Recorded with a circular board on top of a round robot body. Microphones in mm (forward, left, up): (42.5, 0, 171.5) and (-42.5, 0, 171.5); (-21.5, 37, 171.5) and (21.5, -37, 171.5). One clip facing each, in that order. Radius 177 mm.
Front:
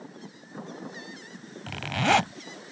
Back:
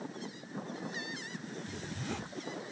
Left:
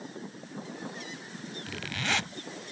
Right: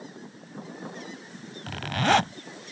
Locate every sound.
1.7 s a zipper: 15° right